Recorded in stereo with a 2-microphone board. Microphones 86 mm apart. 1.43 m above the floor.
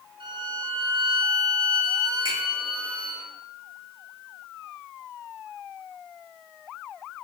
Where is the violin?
75° right (ahead or behind), 1.0 m.